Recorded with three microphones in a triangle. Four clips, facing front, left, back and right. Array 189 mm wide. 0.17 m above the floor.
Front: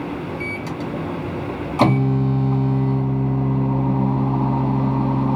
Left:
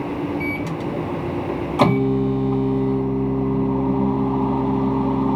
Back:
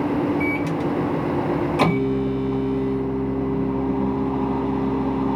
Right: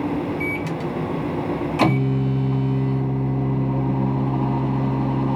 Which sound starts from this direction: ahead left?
A microwave, at 0.4 s.